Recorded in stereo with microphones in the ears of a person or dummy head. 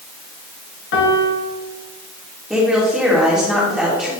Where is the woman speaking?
10° right (ahead or behind), 2.5 m.